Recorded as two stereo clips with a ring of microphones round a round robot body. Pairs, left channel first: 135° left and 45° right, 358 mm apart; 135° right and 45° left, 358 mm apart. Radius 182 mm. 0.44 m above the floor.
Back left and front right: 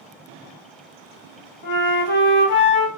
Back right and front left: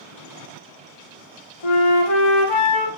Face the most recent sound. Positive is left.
turn(degrees=-165)